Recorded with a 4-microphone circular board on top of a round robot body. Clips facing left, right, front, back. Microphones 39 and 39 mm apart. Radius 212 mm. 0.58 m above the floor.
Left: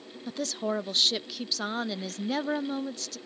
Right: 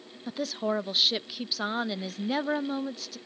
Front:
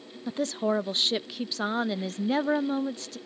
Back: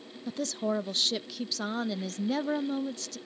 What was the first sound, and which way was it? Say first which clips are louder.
A woman speaking: right 1 dB, front 4 dB; 20° right.